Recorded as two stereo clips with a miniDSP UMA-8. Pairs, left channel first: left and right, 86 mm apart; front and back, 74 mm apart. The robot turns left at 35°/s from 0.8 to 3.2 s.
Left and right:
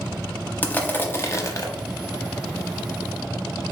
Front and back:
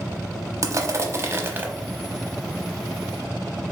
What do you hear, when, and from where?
0.6 s crushing: 155° left, 0.6 m; by 1.7 s 125° left, 0.6 m